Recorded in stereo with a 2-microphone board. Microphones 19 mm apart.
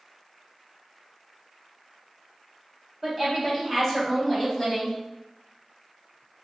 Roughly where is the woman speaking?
Centre.